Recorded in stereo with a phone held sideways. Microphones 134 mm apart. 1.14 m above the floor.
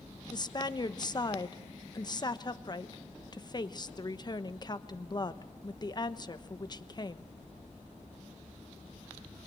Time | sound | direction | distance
0.3 | a woman speaking | 30° left (ahead or behind) | 1.0 m